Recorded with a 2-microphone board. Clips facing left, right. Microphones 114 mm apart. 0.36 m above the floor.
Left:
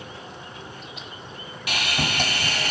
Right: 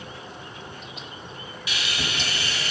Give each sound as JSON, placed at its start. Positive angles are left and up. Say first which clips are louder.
{"t": 1.7, "sound": "sawing", "louder": "left 5 dB", "side_deg": 60, "distance_m": 2.0}